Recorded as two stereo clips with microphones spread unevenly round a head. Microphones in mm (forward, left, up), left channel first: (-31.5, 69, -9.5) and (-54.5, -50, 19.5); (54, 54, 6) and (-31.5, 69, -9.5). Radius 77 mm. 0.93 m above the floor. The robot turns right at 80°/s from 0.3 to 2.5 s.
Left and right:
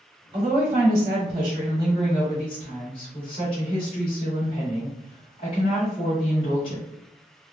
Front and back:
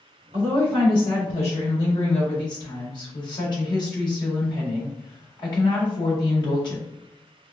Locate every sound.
0.3 s a woman speaking: 150° right, 1.6 m; by 6.8 s 25° left, 1.6 m